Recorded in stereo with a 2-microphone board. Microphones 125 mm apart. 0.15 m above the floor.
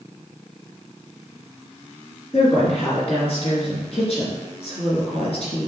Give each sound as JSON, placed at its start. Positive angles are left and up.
{"t": 2.3, "sound": "a woman speaking", "side_deg": 50, "distance_m": 2.5}